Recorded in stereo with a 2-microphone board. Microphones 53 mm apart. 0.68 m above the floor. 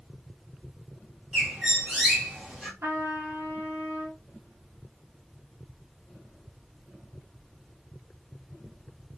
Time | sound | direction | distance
1.3 | a bird | 10° right (ahead or behind) | 1.2 m
2.8 | a trumpet | 50° right (ahead or behind) | 1.6 m